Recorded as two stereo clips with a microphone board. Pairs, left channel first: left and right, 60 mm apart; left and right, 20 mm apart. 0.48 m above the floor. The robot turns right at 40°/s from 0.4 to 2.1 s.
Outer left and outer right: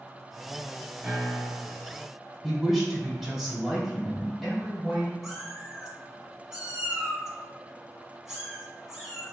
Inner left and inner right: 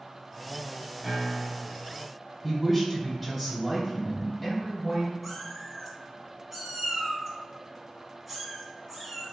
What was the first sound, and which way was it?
A piano, 25° right (ahead or behind).